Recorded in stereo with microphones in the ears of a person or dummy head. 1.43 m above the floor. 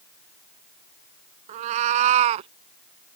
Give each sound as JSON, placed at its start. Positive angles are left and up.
{"t": 1.5, "sound": "a cat meowing", "side_deg": -45}